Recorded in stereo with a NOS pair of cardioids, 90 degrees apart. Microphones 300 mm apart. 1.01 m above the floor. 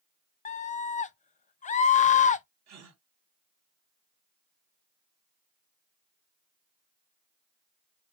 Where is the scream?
25° left, 0.5 m.